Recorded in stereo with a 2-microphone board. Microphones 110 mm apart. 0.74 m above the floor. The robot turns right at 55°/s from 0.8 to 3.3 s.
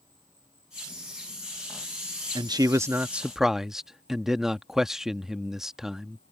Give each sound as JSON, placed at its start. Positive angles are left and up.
{"t": 0.0, "sound": "an insect", "azimuth_deg": -30}
{"t": 2.4, "sound": "a man speaking", "azimuth_deg": -55}